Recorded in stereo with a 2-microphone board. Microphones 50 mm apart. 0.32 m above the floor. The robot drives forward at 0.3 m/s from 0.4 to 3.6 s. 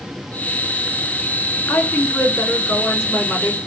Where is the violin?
No violin in this recording.